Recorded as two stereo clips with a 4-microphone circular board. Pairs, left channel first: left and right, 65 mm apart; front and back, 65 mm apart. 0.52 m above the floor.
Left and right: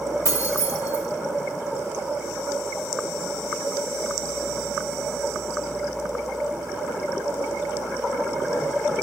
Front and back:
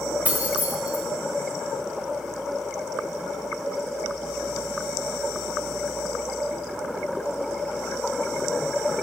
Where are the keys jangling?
120° left, 1.9 m.